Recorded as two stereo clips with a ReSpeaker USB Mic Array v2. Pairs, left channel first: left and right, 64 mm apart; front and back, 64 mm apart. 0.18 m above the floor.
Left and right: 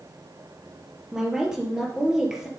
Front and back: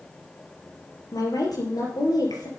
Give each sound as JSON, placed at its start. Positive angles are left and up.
{"t": 1.1, "sound": "a woman speaking", "azimuth_deg": -10, "distance_m": 4.5}